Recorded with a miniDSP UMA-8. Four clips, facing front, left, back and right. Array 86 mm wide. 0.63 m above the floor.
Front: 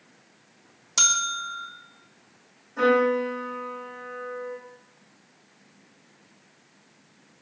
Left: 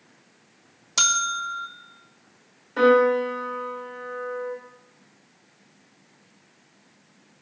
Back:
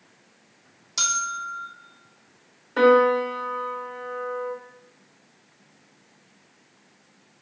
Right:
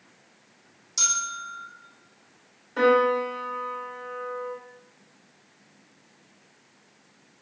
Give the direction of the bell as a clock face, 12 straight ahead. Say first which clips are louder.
Left 7 dB, even; 10 o'clock.